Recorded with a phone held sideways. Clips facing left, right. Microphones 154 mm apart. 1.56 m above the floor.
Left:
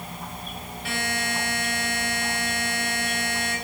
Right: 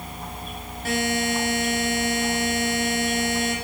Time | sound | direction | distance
0.8 | a buzzer | 45° right (ahead or behind) | 10 m